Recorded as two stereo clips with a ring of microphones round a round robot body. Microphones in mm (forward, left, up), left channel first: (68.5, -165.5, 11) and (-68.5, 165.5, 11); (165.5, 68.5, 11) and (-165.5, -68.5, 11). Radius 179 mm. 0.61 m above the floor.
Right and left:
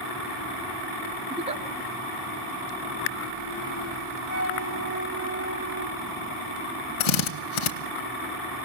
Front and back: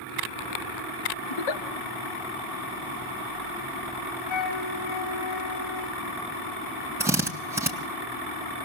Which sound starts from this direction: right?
A drill, at 7.0 s.